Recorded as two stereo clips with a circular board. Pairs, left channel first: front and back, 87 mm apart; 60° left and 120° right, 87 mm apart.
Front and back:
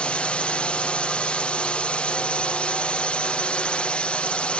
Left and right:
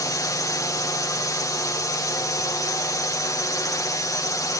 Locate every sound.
0.0 s a drone: 70° left